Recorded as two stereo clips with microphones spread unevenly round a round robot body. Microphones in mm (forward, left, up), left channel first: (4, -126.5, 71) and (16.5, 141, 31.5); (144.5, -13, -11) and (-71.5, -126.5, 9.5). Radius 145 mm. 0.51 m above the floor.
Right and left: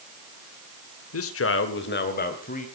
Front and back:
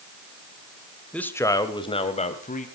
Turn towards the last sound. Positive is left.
turn(degrees=-30)